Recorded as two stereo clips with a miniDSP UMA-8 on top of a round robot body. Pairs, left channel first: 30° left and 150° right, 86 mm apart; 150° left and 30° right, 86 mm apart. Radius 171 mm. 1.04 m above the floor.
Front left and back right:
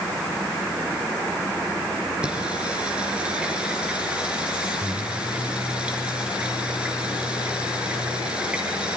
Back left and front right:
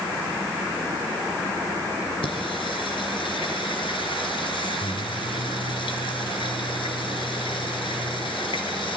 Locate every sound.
2.2 s singing: 130° left, 3.5 m